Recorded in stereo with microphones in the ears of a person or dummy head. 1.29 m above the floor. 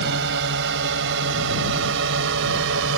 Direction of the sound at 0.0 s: 65° right (ahead or behind).